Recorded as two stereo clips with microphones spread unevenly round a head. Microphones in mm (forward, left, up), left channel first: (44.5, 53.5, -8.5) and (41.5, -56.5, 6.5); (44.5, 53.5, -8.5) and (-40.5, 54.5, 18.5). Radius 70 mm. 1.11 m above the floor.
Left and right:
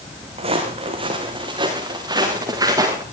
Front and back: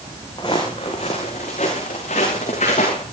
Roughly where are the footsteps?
Ahead right.